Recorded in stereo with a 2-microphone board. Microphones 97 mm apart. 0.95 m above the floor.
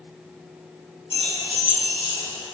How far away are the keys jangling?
About 2.5 m.